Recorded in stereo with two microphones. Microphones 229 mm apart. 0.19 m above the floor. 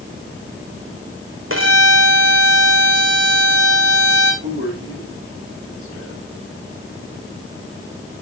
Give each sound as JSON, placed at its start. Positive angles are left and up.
{"t": 1.5, "sound": "a violin", "side_deg": -60, "distance_m": 2.0}
{"t": 4.4, "sound": "a man speaking", "side_deg": -70, "distance_m": 8.5}